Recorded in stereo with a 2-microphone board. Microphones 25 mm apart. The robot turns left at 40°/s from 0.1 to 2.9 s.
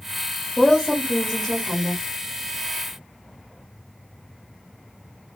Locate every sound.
0.6 s a woman speaking: 25° left (ahead or behind), 1.0 m; by 2.0 s centre (ahead or behind), 1.0 m